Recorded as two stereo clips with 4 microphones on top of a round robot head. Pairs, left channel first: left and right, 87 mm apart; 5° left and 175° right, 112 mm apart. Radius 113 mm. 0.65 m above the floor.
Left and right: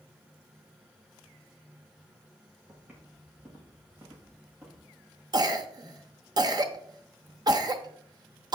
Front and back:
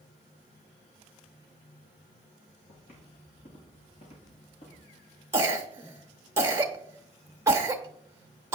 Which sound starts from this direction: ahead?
Footsteps, at 2.7 s.